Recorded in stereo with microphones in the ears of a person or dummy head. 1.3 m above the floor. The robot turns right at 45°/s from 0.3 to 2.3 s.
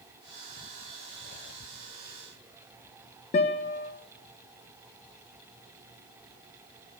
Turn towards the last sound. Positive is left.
turn(degrees=40)  # may be behind; listen again after turning